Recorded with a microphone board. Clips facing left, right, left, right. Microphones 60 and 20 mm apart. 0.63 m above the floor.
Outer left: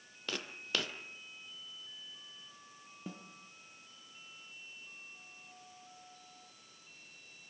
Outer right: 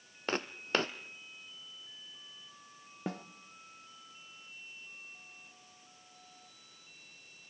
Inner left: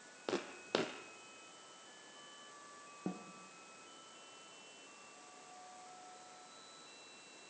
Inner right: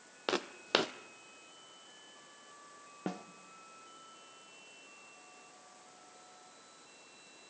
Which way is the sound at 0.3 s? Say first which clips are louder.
Outer right 6 dB, inner right 6 dB; 40° right (ahead or behind).